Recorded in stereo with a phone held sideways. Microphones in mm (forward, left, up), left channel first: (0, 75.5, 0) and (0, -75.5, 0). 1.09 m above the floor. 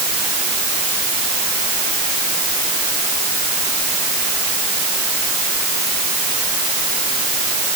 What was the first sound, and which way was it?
Only background noise.